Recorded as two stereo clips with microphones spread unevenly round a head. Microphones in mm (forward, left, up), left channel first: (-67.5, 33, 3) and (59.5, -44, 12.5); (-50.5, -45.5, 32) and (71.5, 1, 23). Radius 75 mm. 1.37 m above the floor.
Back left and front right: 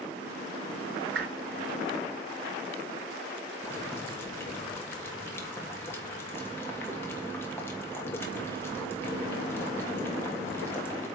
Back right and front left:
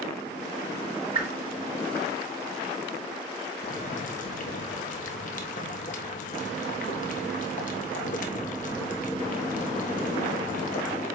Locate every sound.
1.1 s a whoosh: 25° right, 4 m
3.6 s boiling: 135° right, 1.4 m